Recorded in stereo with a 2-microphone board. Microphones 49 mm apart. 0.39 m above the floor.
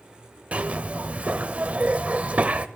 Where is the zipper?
30° right (ahead or behind), 0.6 m.